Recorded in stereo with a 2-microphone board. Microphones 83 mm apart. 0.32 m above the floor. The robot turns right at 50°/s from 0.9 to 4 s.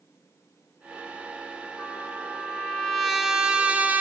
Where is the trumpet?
15° left (ahead or behind), 0.8 m; by 4.0 s 15° right (ahead or behind), 0.8 m.